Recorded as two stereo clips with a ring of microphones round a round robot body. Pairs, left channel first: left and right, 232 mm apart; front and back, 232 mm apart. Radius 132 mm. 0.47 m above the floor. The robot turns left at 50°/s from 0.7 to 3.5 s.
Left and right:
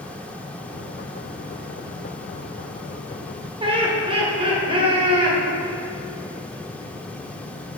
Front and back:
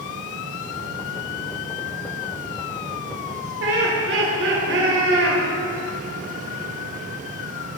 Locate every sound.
3.6 s laughter: 155° right, 1.7 m